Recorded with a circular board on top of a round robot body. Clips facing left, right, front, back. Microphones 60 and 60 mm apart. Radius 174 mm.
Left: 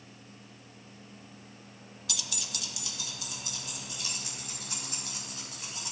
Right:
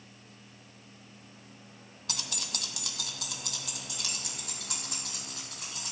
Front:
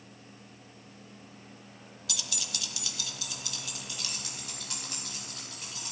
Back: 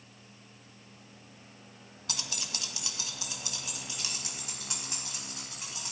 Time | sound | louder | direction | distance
2.1 | keys jangling | right 1 dB, even | 135° right | 0.7 m